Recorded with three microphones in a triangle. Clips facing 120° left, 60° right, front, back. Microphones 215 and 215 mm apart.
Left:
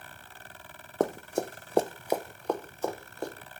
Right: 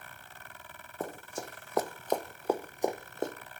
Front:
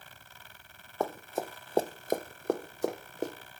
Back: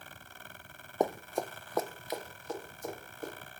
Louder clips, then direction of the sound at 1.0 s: Left 11 dB, back 2 dB; 110° left.